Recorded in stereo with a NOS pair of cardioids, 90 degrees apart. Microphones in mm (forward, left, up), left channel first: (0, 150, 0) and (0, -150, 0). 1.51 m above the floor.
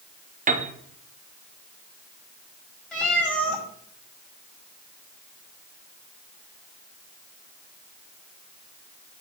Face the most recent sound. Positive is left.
turn(degrees=5)